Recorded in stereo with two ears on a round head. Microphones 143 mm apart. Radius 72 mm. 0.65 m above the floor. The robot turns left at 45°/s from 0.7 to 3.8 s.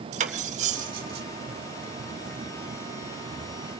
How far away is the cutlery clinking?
About 1.2 m.